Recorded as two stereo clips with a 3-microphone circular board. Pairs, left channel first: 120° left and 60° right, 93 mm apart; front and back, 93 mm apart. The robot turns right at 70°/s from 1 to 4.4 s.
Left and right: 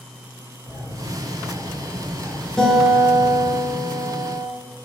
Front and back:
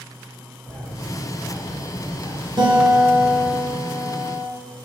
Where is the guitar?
155° right, 1.1 m; by 4.5 s 30° right, 1.1 m.